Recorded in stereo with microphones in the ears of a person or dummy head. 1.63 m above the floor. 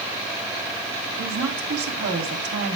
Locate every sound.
1.2 s a woman speaking: 80° right, 4 m